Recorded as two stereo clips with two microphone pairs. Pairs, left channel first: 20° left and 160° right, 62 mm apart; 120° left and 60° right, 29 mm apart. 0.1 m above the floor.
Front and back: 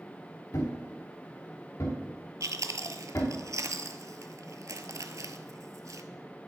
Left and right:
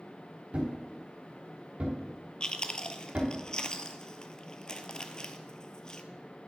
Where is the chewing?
Straight behind, 0.7 m.